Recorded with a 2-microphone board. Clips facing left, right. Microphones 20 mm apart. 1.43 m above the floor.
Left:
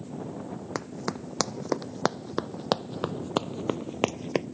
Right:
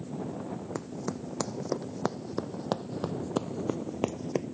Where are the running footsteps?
50° left (ahead or behind).